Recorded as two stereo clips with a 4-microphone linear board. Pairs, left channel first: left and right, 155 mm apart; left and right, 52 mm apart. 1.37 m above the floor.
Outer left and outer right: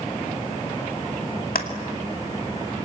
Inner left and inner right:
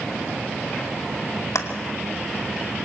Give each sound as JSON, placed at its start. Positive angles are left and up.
{"t": 1.6, "sound": "a clap", "side_deg": 80, "distance_m": 2.5}